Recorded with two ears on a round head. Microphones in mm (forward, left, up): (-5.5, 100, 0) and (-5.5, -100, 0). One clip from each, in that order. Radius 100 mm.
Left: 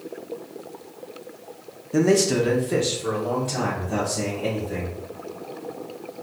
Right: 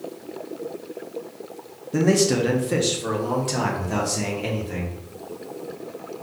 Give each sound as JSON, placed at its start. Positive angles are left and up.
{"t": 1.9, "sound": "a man speaking", "side_deg": 10, "distance_m": 0.6}